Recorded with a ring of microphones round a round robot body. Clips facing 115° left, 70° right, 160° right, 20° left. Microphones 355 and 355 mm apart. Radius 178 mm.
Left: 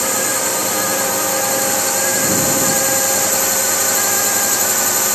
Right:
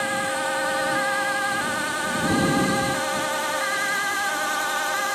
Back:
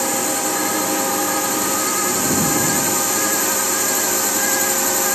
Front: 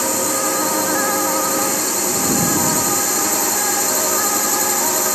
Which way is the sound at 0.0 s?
115° left.